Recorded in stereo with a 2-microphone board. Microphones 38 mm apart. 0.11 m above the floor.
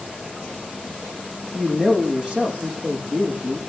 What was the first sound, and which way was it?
A man speaking, 25° right (ahead or behind).